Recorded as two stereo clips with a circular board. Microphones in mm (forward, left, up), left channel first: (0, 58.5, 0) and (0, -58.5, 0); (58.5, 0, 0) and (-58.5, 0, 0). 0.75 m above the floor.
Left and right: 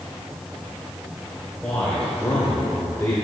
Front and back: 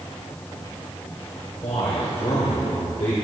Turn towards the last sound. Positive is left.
turn(degrees=25)